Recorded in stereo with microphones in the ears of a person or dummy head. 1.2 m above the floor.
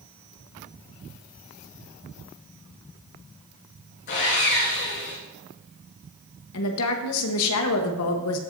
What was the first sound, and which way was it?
Sawing, 55° left (ahead or behind).